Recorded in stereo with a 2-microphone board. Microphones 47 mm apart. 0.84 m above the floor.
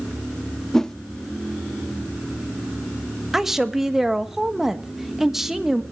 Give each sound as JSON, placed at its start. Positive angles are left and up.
{"t": 0.7, "sound": "a whoosh", "side_deg": 10, "distance_m": 0.6}
{"t": 3.3, "sound": "a woman speaking", "side_deg": -10, "distance_m": 1.1}